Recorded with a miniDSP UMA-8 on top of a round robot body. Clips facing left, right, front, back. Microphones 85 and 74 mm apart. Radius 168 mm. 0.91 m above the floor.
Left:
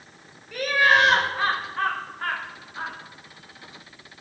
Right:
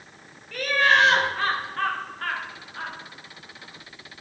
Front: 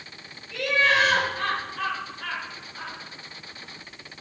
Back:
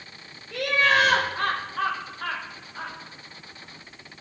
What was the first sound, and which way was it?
Laughter, 170° left.